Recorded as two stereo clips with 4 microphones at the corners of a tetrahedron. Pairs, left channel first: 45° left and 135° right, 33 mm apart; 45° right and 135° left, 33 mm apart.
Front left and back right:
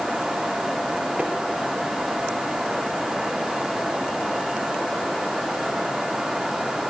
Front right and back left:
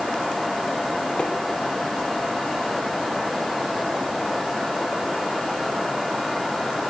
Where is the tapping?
100° right, 3 m.